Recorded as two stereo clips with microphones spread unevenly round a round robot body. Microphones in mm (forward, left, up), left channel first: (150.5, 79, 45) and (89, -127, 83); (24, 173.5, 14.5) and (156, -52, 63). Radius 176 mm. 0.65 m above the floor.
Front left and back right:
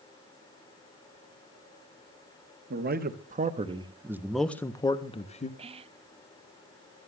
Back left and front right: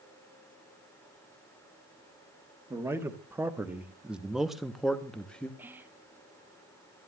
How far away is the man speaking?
About 1.3 m.